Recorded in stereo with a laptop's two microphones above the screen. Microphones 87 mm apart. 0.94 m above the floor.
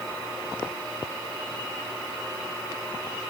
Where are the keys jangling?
No keys jangling in this recording.